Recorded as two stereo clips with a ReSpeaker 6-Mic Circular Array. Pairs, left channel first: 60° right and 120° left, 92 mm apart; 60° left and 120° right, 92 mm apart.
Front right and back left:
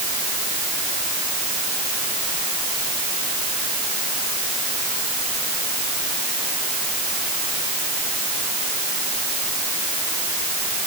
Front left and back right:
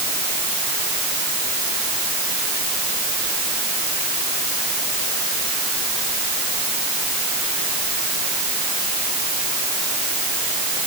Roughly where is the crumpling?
I don't hear crumpling.